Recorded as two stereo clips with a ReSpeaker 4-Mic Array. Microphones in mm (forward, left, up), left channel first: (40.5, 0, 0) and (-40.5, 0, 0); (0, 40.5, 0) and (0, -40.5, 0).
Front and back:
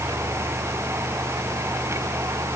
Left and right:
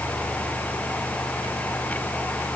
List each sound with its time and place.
Only background noise.